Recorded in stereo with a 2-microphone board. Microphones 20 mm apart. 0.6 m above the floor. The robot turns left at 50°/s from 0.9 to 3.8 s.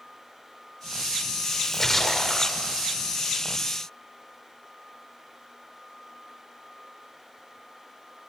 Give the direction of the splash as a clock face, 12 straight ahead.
11 o'clock.